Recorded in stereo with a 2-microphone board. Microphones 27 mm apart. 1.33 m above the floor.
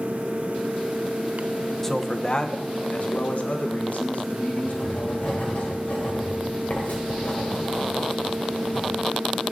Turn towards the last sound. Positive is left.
turn(degrees=55)  # may be behind; listen again after turning